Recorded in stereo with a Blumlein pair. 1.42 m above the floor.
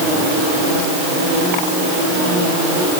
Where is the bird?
I don't hear a bird.